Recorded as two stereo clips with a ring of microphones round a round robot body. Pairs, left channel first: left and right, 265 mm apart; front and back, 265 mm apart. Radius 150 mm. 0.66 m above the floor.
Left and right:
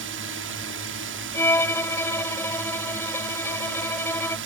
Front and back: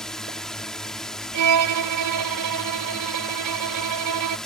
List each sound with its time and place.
0.0 s a drone: 85° right
1.3 s a violin: 170° left